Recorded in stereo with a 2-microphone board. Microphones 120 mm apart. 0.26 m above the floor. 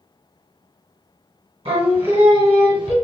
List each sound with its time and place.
1.6 s singing: 55° right (ahead or behind), 1.2 m